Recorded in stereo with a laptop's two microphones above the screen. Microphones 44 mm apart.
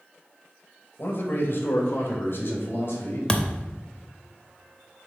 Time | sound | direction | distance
1.0 | a man speaking | 55° left (ahead or behind) | 1.4 m
3.3 | a thud | 20° left (ahead or behind) | 0.6 m